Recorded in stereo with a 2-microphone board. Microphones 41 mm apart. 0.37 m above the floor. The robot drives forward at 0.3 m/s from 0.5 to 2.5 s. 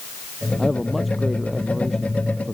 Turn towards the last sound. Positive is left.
turn(degrees=0)  # may be behind; listen again after turning